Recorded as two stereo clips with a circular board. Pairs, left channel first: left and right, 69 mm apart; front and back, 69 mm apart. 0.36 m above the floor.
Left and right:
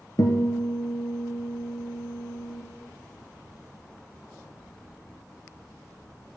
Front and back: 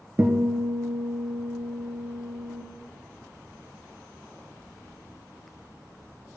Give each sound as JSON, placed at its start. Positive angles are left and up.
{"t": 0.2, "sound": "a guitar", "azimuth_deg": 120, "distance_m": 1.5}